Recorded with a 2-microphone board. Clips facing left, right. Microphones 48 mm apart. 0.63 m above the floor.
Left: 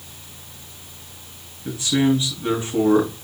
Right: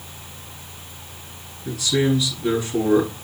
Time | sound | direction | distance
1.6 | a man speaking | 25° left (ahead or behind) | 5.5 m